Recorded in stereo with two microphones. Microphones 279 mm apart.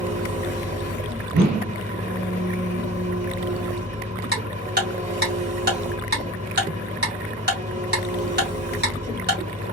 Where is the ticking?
35° right (ahead or behind), 2 m.